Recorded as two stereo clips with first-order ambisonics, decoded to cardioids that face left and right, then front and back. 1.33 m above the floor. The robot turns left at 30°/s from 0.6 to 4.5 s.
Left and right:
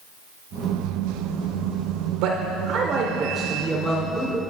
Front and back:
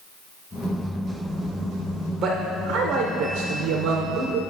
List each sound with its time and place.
2.2 s a man speaking: 125° right, 0.7 m; by 4.4 s 170° left, 0.7 m